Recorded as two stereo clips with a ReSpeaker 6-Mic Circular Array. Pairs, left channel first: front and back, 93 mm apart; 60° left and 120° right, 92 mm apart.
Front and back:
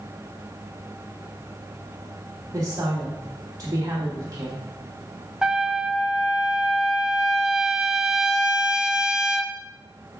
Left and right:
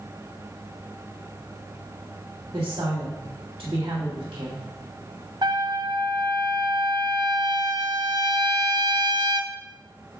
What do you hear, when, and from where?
2.5 s a woman speaking: 135° right, 1.9 m
5.4 s a trumpet: 100° right, 0.5 m